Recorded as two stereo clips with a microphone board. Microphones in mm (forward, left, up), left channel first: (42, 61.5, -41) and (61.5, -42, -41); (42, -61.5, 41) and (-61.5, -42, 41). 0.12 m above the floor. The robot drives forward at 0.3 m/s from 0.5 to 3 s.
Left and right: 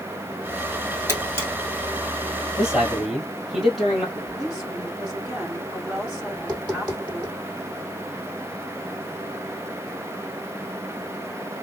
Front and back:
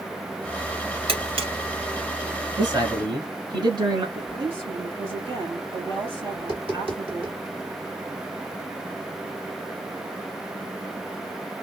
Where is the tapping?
175° left, 3 m.